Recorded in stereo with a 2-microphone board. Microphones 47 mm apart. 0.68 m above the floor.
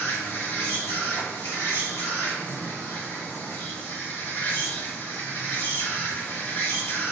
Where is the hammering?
I don't hear hammering.